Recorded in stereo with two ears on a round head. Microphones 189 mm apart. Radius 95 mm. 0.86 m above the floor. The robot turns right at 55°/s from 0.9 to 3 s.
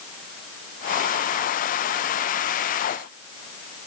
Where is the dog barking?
No dog barking in this recording.